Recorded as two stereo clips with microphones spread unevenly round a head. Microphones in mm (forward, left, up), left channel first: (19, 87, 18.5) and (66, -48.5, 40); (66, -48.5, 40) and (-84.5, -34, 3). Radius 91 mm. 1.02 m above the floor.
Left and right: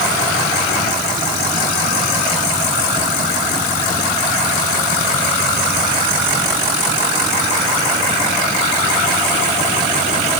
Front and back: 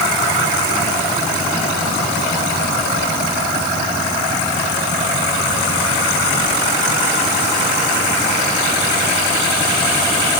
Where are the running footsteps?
No running footsteps in this recording.